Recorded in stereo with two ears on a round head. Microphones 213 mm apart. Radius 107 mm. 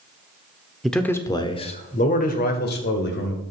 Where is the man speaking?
Centre (ahead or behind), 1.1 m; by 3.4 s 50° left (ahead or behind), 2.5 m.